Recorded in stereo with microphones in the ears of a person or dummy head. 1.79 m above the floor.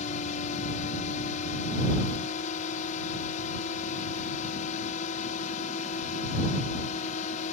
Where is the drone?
45° left (ahead or behind).